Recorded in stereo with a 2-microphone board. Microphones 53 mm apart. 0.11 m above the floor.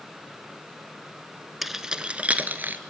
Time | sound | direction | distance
1.6 | keys jangling | 5° right (ahead or behind) | 1.0 m